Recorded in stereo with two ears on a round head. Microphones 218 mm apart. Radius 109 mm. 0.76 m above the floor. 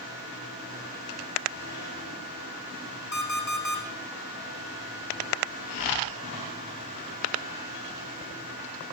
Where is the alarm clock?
45° left (ahead or behind), 4 m.